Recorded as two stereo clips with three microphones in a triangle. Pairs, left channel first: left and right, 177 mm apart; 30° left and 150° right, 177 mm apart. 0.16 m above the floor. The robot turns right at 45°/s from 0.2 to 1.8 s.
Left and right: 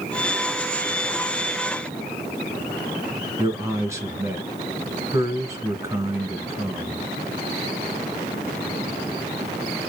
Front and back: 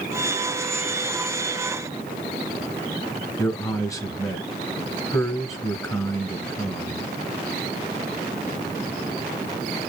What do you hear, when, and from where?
3.4 s a man speaking: 30° right, 1.8 m